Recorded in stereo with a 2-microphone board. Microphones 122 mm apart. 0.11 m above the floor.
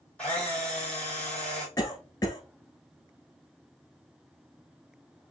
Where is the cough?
30° left (ahead or behind), 1.2 m.